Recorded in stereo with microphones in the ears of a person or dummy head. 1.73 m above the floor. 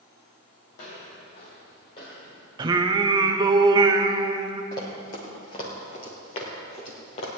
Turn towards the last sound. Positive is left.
turn(degrees=40)  # may be behind; listen again after turning